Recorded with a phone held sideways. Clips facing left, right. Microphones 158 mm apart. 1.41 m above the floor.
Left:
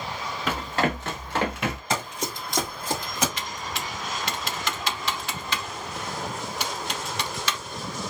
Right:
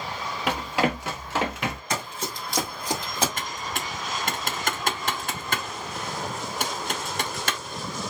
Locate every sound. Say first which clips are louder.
0.5 s running footsteps: right 1 dB; 15° right (ahead or behind), 1.8 m; by 1.8 s 5° left (ahead or behind), 1.5 m
1.9 s running footsteps: left 2 dB; 30° left (ahead or behind), 1.8 m; by 3.3 s 35° right (ahead or behind), 1.9 m
3.4 s typing on a keyboard: right 1 dB; 55° right (ahead or behind), 0.6 m